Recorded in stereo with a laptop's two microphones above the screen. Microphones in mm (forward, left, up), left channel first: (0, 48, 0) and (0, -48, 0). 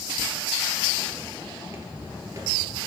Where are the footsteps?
25° right (ahead or behind), 1.3 m; by 2.8 s 35° right (ahead or behind), 1.5 m.